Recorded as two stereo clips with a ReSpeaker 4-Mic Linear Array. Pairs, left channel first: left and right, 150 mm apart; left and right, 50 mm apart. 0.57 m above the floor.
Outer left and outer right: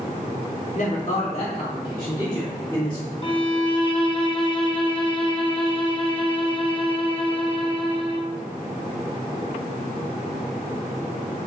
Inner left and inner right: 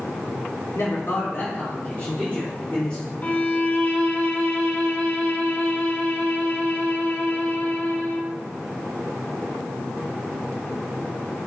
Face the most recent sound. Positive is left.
turn(degrees=35)  # may be behind; listen again after turning